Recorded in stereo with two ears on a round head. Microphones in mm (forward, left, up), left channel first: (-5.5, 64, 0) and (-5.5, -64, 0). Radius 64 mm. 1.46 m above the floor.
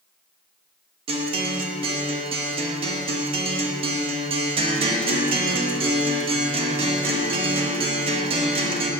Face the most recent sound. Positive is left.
turn(degrees=-40)  # may be behind; listen again after turning